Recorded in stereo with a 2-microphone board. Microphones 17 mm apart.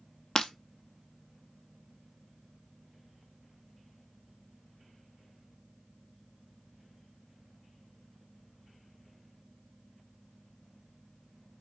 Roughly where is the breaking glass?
Left.